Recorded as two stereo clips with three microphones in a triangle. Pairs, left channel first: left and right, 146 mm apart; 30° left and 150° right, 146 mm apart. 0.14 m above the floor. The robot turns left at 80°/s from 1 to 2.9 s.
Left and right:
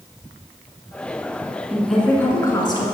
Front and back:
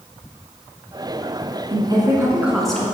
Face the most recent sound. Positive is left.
turn(degrees=100)